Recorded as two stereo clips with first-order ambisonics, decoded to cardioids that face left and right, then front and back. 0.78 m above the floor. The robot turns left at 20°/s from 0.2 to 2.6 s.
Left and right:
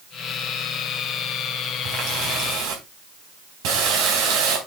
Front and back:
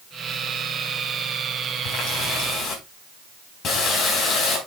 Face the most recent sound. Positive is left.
turn(degrees=-60)